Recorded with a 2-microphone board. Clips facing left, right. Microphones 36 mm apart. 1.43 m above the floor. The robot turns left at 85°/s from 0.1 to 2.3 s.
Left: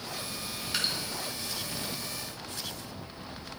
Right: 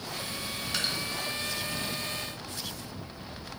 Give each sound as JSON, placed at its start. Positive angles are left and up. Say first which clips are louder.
{"t": 0.7, "sound": "dripping", "louder": "left 1 dB", "side_deg": 5, "distance_m": 1.6}